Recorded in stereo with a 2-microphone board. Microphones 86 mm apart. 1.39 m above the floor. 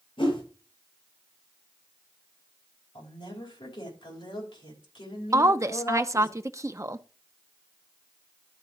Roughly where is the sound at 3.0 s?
Left.